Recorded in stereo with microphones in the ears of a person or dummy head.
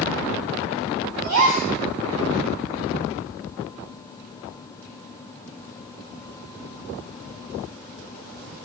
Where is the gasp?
70° right (ahead or behind), 5.5 m.